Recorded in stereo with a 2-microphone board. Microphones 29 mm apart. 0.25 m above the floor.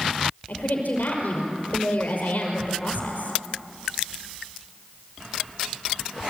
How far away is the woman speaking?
About 5 m.